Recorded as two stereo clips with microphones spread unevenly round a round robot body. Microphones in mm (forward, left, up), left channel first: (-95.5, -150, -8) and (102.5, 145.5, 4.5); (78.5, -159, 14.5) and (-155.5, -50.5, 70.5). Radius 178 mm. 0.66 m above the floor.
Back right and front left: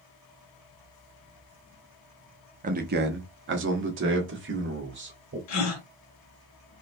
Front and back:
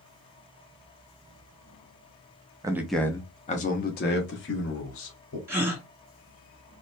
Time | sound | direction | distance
2.6 | a man speaking | 70° left | 0.7 m
5.5 | a gasp | 125° right | 1.9 m